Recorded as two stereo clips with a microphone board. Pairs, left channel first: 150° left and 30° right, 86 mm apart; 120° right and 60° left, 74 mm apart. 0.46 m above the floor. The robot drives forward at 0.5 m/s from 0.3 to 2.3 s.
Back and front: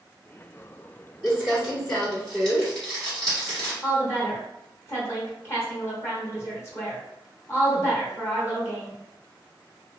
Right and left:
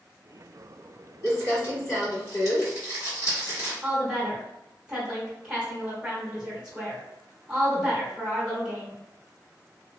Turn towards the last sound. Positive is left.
turn(degrees=135)